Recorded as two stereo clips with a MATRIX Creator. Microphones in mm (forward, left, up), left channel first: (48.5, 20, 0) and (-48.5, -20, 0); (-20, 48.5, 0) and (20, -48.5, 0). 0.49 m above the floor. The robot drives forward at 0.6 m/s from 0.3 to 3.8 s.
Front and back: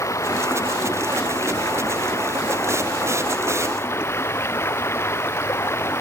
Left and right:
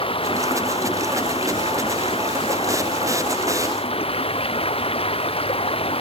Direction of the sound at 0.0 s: 85° left.